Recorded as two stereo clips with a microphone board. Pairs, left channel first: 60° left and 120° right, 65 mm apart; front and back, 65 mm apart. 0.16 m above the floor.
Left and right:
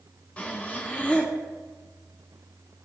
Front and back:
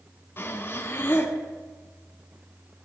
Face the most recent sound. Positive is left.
turn(degrees=5)